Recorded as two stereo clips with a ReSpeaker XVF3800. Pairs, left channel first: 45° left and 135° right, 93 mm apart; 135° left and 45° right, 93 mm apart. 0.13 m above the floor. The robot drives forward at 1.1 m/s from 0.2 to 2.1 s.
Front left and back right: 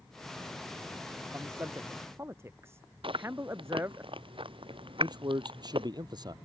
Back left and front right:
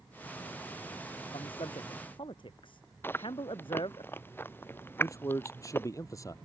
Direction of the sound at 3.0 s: 160° right.